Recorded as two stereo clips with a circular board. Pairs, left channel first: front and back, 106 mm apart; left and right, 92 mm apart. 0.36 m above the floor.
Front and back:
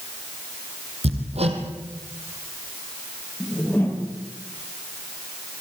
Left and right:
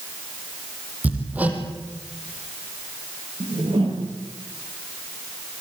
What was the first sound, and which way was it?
Hammering, 165° right.